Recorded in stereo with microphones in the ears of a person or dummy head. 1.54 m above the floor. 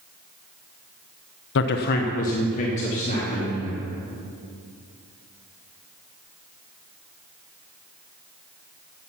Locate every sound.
1.6 s a man speaking: 60° left (ahead or behind), 0.7 m; by 3.8 s 35° left (ahead or behind), 3.5 m